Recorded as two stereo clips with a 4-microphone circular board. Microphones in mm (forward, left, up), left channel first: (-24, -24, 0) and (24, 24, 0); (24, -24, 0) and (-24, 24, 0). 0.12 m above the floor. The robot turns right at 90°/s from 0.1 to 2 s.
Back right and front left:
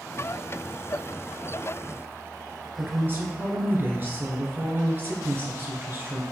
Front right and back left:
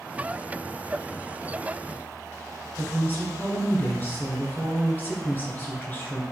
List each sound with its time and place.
2.8 s a woman speaking: straight ahead, 1.9 m